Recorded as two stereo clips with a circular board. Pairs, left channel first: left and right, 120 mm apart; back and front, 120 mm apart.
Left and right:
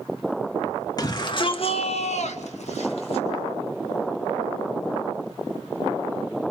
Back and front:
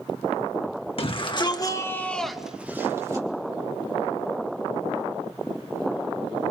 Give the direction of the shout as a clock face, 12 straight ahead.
7 o'clock.